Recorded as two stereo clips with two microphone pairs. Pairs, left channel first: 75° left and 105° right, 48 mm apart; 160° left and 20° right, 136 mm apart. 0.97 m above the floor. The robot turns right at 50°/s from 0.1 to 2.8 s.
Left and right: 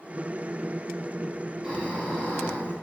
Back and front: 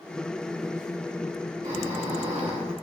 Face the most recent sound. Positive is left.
turn(degrees=30)